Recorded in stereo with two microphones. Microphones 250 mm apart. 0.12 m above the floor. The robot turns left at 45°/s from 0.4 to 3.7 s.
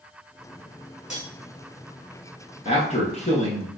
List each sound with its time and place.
1.1 s cutlery clinking: 30° left (ahead or behind), 1.4 m; by 1.3 s 35° left (ahead or behind), 1.4 m
2.6 s a man speaking: 25° left (ahead or behind), 1.2 m; by 3.7 s 30° left (ahead or behind), 1.2 m